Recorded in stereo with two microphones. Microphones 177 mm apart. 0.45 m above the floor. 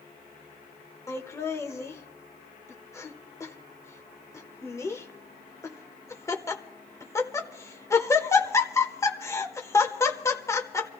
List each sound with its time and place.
1.1 s laughter: 20° left (ahead or behind), 1.0 m